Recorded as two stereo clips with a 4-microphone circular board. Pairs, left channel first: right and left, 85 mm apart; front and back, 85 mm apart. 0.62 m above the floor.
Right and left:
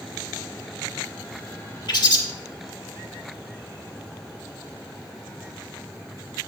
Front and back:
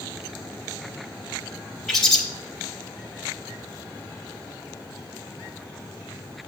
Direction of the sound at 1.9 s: 90° right.